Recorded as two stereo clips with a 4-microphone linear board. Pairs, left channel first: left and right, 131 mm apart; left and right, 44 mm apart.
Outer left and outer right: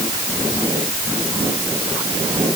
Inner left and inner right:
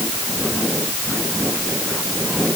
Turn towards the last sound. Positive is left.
No sound to turn to.